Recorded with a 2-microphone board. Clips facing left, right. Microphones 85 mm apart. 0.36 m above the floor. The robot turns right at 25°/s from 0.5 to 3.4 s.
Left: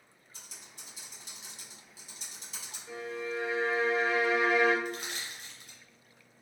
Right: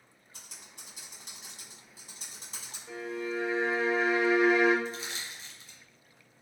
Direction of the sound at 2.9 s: 15° right (ahead or behind).